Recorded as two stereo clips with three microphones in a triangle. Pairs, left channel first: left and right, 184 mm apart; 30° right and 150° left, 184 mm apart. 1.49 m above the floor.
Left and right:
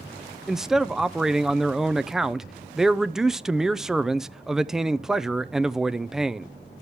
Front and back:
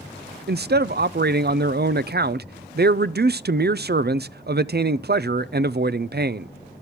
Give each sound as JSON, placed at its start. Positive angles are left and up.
{"t": 0.5, "sound": "a man speaking", "azimuth_deg": -175, "distance_m": 0.5}